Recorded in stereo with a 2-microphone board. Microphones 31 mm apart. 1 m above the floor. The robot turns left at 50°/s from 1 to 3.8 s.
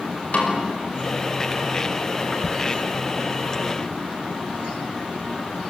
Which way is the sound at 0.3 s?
50° left (ahead or behind).